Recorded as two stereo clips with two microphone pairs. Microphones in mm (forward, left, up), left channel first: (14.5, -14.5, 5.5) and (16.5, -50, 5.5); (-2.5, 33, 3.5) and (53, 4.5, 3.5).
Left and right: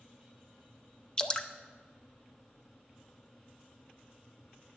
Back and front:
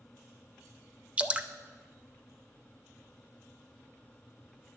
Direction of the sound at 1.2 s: 30° left.